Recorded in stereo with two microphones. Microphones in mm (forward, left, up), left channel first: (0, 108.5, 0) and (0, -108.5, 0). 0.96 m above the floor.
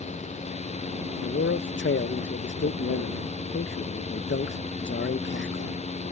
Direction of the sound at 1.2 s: 60° left (ahead or behind).